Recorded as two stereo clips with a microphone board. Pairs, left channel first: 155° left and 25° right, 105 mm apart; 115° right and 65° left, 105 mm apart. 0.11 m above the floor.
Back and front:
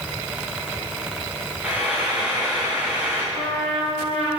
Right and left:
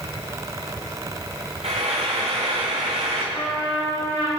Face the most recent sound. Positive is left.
turn(degrees=-35)